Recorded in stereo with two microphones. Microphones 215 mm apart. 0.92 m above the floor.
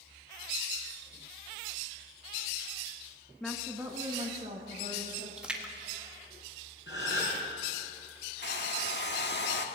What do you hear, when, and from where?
3.4 s a woman speaking: 5° left (ahead or behind), 1.0 m; by 5.3 s 35° right (ahead or behind), 2.5 m
5.4 s a splash: 5° right (ahead or behind), 1.5 m
6.9 s a gasp: 60° left (ahead or behind), 4.5 m
8.4 s a hair dryer: 55° left (ahead or behind), 1.1 m